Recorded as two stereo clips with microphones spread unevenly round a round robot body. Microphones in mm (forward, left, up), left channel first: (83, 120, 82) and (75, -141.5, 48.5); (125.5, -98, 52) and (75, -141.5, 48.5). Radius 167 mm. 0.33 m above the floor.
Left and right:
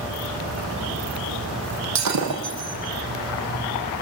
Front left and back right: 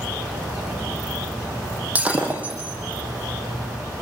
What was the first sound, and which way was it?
Breaking glass, 70° right.